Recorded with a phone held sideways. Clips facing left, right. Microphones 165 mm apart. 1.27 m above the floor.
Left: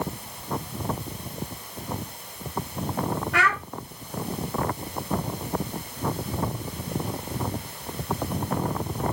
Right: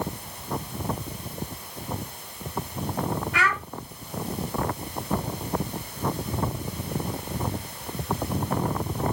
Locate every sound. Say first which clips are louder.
3.3 s a child speaking: left 2 dB; 70° left (ahead or behind), 1.3 m